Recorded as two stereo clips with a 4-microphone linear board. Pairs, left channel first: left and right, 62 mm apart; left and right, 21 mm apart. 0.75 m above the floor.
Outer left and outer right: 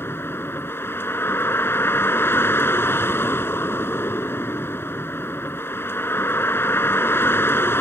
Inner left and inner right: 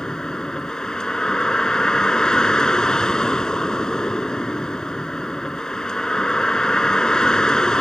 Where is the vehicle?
40° left (ahead or behind).